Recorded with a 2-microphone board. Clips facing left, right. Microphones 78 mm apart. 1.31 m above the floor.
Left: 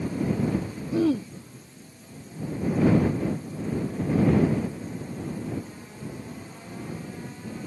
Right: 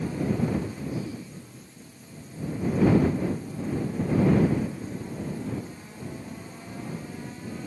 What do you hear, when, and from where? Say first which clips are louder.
0.9 s throat clearing: left 11 dB; 85° left